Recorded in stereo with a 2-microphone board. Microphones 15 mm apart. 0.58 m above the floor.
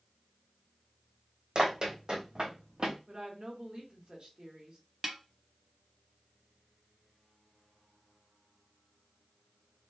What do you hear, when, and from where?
1.6 s running footsteps: 55° right (ahead or behind), 1.6 m; by 3.0 s 60° right (ahead or behind), 1.0 m
3.1 s a woman speaking: 55° right (ahead or behind), 1.1 m
5.0 s a snare drum: 15° right (ahead or behind), 0.6 m